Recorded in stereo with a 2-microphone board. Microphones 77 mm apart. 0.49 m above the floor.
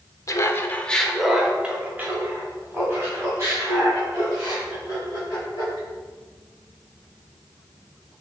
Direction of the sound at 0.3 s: 45° left (ahead or behind).